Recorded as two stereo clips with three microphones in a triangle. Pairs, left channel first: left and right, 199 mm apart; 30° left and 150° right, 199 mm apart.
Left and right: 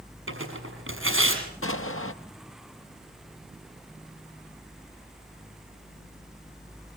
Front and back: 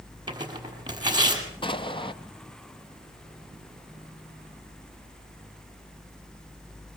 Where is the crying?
No crying in this recording.